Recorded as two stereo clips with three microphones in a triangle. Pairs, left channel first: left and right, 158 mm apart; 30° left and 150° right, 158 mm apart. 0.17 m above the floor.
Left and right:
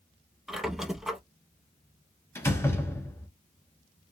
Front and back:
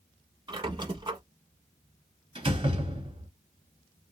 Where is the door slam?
160° left, 1.3 m.